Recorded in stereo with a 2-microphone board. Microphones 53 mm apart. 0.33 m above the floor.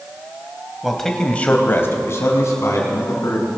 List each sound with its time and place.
0.8 s a man speaking: 5° right (ahead or behind), 1.7 m; by 3.5 s 70° left (ahead or behind), 3.5 m